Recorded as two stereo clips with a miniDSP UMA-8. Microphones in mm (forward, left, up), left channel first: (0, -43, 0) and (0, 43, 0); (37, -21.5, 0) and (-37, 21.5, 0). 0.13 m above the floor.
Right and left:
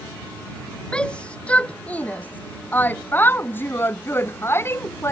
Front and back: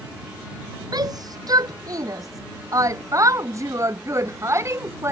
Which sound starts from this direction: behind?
A shout, at 0.9 s.